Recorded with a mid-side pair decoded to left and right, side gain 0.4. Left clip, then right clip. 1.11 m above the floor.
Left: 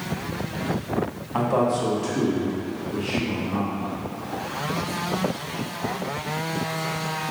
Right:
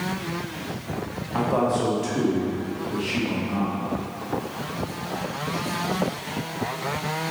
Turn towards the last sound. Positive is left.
turn(degrees=-65)